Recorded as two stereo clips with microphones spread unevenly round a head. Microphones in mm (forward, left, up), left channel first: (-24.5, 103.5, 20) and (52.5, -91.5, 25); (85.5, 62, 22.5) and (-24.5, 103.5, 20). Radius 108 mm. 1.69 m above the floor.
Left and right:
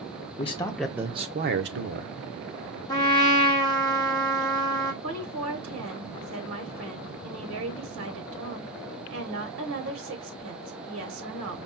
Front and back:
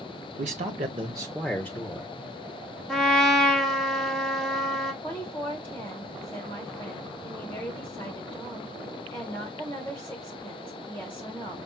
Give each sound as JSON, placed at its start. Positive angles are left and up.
{"t": 0.4, "sound": "a man speaking", "azimuth_deg": 170, "distance_m": 0.7}
{"t": 2.9, "sound": "a trumpet", "azimuth_deg": 65, "distance_m": 1.1}
{"t": 5.0, "sound": "a woman speaking", "azimuth_deg": -85, "distance_m": 1.2}